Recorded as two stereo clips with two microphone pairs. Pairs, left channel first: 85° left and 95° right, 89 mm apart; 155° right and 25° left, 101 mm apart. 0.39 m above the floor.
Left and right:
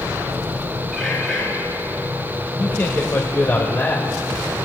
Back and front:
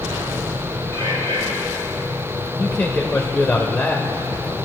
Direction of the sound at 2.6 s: 135° left.